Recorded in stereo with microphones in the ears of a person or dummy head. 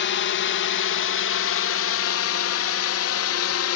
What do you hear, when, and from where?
0.0 s a drone: 50° left (ahead or behind); by 3.8 s 70° left (ahead or behind)